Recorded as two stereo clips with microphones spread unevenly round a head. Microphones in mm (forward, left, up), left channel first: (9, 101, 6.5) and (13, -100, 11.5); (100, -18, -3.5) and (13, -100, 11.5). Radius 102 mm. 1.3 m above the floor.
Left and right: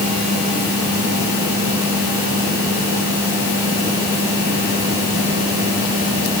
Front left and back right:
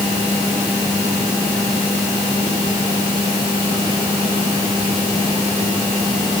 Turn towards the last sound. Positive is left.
No sound to turn to.